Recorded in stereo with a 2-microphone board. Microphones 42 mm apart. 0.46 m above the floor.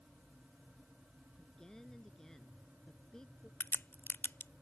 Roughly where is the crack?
Left.